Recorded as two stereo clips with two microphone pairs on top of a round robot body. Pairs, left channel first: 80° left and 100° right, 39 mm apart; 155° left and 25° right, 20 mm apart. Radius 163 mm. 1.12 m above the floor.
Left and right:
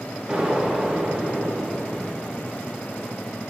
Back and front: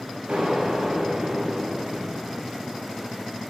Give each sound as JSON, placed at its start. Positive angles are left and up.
{"t": 0.3, "sound": "an explosion", "azimuth_deg": -30, "distance_m": 1.0}